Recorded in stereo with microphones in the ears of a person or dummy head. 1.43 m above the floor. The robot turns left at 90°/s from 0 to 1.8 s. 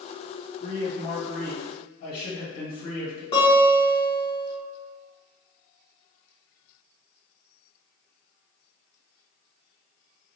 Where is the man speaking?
120° right, 1.8 m; by 3.2 s 130° left, 1.8 m.